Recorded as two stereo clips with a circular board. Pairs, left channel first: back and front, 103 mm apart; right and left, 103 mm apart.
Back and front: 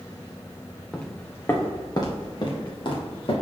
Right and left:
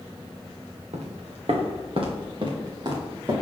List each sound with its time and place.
0.9 s footsteps: 95° left, 1.5 m; by 3.3 s 140° left, 3.5 m